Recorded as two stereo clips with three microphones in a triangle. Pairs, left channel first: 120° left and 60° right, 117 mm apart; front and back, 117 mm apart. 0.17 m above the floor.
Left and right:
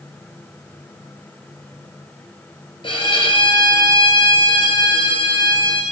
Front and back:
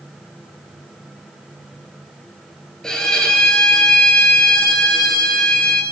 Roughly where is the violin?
Left.